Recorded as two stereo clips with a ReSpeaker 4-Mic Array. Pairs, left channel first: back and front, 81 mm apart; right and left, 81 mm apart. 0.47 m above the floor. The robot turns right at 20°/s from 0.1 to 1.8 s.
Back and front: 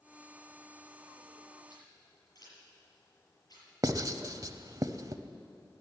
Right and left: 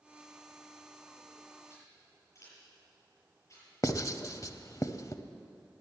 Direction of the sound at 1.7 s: 140° right.